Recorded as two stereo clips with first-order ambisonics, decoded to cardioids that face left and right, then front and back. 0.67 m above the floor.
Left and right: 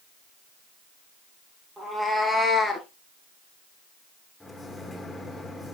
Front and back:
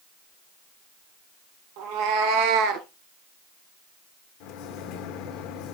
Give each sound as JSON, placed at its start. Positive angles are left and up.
{"t": 1.8, "sound": "a cat meowing", "azimuth_deg": -170, "distance_m": 2.0}
{"t": 4.4, "sound": "a microwave", "azimuth_deg": 5, "distance_m": 1.3}